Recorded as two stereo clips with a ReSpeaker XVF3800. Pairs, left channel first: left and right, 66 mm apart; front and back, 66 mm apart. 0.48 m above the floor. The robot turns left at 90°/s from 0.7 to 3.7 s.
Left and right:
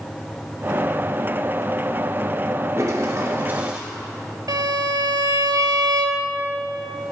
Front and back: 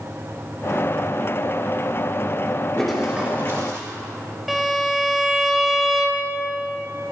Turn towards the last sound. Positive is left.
turn(degrees=-90)